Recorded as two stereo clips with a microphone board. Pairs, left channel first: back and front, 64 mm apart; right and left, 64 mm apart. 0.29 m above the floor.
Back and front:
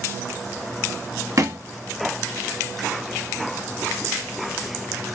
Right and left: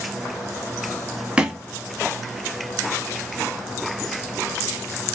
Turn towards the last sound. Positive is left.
turn(degrees=20)